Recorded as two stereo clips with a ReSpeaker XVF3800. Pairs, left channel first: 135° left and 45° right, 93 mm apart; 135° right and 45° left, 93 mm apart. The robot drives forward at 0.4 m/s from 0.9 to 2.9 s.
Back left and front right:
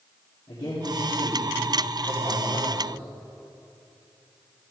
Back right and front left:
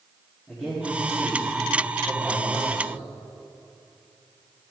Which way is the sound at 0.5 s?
150° left.